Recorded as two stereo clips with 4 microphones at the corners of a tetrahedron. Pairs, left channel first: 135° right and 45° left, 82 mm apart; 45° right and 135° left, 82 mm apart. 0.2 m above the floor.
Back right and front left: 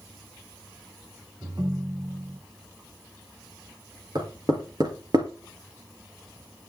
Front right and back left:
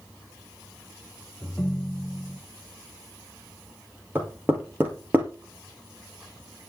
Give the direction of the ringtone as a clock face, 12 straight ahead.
11 o'clock.